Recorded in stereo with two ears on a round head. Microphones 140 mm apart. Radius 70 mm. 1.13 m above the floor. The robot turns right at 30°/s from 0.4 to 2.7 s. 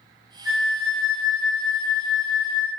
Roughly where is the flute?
Ahead.